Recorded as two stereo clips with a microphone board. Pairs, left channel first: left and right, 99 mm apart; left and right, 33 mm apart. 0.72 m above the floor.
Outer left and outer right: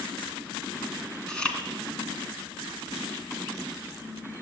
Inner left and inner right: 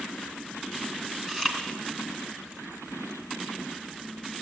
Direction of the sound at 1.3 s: 10° left (ahead or behind).